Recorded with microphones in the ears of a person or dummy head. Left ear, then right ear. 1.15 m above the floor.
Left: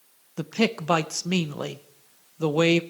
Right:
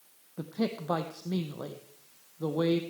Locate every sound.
0.4 s a man speaking: 70° left (ahead or behind), 0.6 m